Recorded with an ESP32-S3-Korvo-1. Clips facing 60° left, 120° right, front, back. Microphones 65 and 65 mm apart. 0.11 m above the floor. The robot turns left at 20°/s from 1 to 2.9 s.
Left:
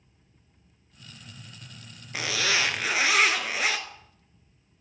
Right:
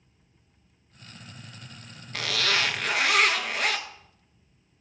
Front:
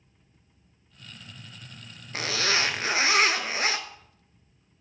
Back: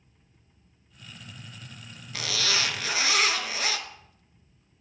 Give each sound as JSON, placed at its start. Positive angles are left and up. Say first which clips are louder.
{"t": 2.1, "sound": "a zipper", "louder": "even, front 3 dB", "azimuth_deg": -5, "distance_m": 0.6}